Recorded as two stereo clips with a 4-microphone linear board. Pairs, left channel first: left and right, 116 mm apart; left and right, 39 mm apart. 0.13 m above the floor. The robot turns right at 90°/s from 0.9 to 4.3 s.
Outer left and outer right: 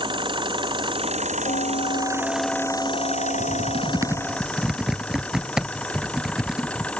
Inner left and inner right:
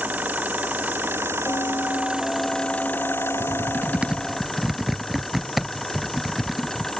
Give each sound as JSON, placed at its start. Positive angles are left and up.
{"t": 0.0, "sound": "an engine running", "azimuth_deg": -135}
{"t": 1.5, "sound": "a bell", "azimuth_deg": 80}
{"t": 3.4, "sound": "typing on a keyboard", "side_deg": -65}